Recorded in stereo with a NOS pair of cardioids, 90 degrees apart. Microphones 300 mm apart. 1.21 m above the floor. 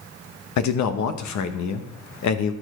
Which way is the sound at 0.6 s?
65° left.